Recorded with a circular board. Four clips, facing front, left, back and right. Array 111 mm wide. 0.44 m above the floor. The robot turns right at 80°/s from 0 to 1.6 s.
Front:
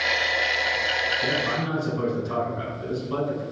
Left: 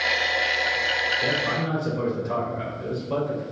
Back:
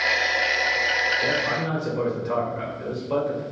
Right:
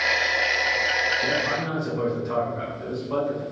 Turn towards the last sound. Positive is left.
turn(degrees=175)